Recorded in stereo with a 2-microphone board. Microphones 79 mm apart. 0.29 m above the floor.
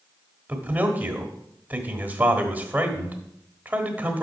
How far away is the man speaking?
About 1.1 m.